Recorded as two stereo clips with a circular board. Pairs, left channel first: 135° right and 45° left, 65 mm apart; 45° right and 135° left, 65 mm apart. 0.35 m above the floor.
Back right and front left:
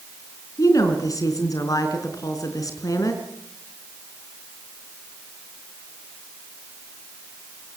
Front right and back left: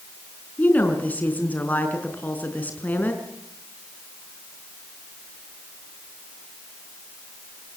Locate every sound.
0.6 s a woman speaking: 110° right, 4.5 m